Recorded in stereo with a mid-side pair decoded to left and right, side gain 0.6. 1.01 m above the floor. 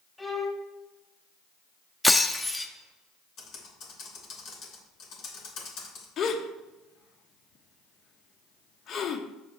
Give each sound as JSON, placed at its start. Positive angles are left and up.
{"t": 0.2, "sound": "a violin", "azimuth_deg": 10, "distance_m": 2.5}
{"t": 2.0, "sound": "breaking glass", "azimuth_deg": 10, "distance_m": 0.8}
{"t": 3.4, "sound": "typing on a keyboard", "azimuth_deg": 60, "distance_m": 3.0}
{"t": 6.2, "sound": "a gasp", "azimuth_deg": 50, "distance_m": 0.9}